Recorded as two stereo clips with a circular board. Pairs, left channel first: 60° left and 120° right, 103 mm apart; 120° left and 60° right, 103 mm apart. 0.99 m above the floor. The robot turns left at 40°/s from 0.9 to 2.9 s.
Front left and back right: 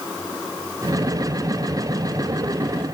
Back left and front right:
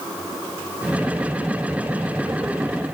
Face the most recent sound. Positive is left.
No sound to turn to.